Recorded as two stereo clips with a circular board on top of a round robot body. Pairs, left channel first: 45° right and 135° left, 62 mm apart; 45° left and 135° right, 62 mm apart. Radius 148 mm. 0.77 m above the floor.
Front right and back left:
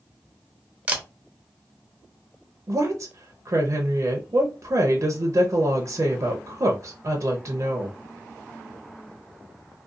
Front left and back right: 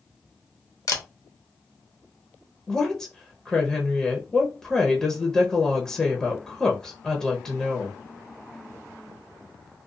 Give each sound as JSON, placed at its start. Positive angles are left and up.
{"t": 0.9, "sound": "a camera shutter", "azimuth_deg": 70, "distance_m": 0.8}
{"t": 2.7, "sound": "a woman speaking", "azimuth_deg": 125, "distance_m": 0.7}